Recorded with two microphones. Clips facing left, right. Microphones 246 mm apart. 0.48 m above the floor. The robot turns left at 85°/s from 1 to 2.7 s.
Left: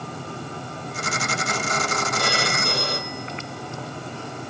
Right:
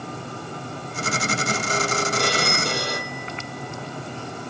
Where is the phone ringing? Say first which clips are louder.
Right 2 dB; 115° right, 9 m; by 4.5 s 160° right, 9 m.